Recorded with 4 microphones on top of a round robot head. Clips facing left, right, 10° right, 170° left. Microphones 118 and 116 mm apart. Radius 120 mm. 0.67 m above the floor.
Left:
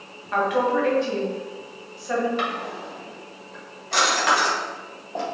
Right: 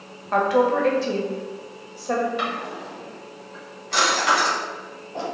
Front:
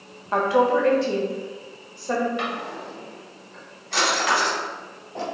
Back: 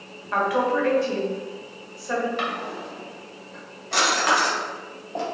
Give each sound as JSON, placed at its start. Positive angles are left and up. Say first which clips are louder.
{"t": 0.3, "sound": "a woman speaking", "louder": "right 2 dB, front 3 dB", "azimuth_deg": -55, "distance_m": 1.3}
{"t": 2.4, "sound": "a drawer", "louder": "even, even", "azimuth_deg": 130, "distance_m": 1.9}